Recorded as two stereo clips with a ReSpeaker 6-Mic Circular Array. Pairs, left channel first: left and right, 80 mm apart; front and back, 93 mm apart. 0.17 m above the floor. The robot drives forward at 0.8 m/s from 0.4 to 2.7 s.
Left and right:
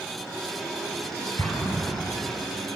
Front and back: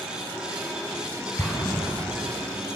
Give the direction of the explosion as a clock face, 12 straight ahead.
10 o'clock.